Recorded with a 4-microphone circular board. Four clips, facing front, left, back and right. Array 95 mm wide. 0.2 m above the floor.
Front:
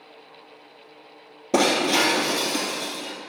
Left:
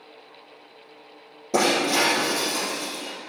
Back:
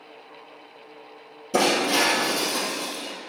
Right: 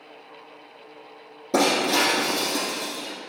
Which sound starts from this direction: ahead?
Breaking glass, at 1.5 s.